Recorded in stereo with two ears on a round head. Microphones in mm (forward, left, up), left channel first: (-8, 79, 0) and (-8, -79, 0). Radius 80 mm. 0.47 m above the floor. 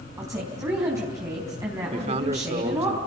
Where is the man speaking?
35° right (ahead or behind), 1.2 m.